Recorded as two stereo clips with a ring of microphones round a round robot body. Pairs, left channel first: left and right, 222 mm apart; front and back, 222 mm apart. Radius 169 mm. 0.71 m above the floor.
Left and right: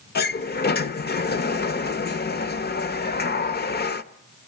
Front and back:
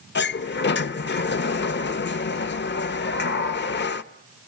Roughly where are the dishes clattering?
I don't hear dishes clattering.